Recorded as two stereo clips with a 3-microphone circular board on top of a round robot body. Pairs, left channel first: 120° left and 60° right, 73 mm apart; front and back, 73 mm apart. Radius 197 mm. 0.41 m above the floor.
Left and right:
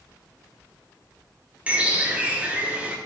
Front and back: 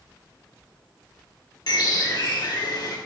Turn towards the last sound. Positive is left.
turn(degrees=10)